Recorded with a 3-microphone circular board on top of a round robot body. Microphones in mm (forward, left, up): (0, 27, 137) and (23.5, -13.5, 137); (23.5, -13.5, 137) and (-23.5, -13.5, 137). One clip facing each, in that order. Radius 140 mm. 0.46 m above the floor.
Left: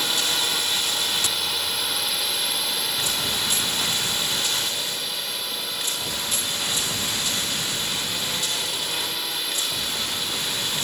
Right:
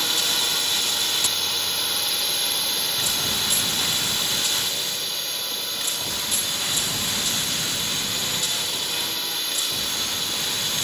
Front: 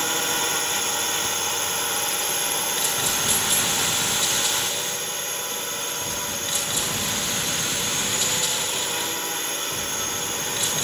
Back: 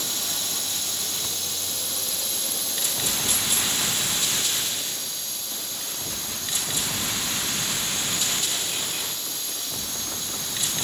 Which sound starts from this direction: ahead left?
A drone, at 0.0 s.